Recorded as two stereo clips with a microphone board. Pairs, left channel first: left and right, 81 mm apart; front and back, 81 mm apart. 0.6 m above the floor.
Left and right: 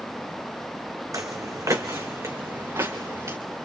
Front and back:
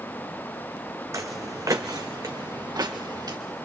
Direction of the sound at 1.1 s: 130° right.